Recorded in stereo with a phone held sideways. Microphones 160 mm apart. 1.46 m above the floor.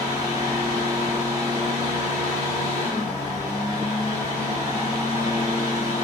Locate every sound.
0.0 s a fan: 15° right (ahead or behind), 1.4 m